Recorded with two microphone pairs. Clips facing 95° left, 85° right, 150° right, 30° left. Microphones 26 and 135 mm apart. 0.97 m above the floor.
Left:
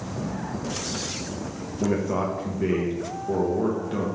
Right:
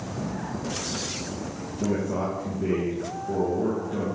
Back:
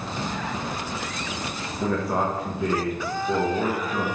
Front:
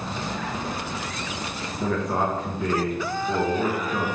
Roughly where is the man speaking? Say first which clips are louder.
Left 2 dB, even; behind left.